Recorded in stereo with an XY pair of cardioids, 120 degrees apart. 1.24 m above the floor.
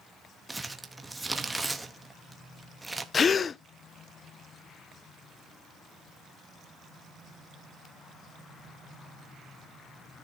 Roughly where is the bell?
No bell in this recording.